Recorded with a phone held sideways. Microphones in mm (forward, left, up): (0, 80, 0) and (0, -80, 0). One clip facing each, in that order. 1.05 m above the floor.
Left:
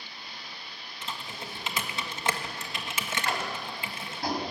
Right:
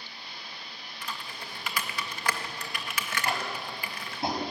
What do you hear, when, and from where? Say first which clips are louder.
1.0 s typing on a keyboard: left 2 dB; 20° left (ahead or behind), 1.6 m
3.2 s tapping: right 1 dB; 25° right (ahead or behind), 4.5 m